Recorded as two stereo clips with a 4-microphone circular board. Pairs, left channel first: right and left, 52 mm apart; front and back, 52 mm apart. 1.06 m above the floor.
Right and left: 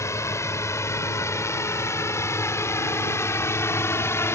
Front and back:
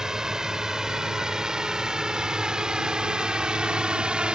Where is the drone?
100° right; by 4.3 s 110° right.